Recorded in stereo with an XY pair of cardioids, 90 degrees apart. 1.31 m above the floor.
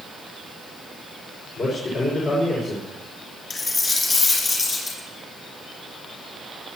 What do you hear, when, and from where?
1.6 s a man speaking: 65° left, 6 m
3.5 s a dropped coin: 35° left, 7 m